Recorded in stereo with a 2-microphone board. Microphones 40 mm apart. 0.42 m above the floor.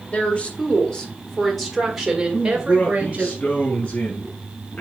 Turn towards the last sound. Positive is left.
turn(degrees=40)  # may be behind; listen again after turning